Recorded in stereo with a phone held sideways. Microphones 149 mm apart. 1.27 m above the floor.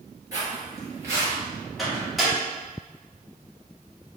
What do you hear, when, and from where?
0.3 s footsteps: 25° right (ahead or behind), 1.4 m; by 1.3 s 20° right (ahead or behind), 2.0 m
1.8 s a microwave: centre (ahead or behind), 1.5 m